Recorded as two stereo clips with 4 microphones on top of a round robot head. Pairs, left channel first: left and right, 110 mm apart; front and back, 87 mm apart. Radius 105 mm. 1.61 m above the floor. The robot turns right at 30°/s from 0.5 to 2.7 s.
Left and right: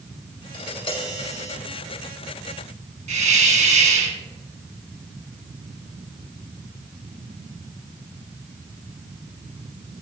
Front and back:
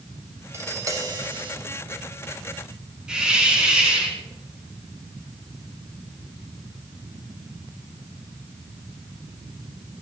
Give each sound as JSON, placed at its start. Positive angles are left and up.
{"t": 0.5, "sound": "tapping", "azimuth_deg": 125, "distance_m": 5.5}
{"t": 3.1, "sound": "a hiss", "azimuth_deg": -95, "distance_m": 3.5}